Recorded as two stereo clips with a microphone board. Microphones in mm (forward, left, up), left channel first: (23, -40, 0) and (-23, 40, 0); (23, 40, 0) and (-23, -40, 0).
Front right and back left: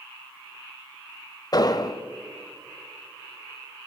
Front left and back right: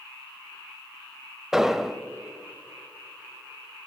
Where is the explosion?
35° right, 0.8 m.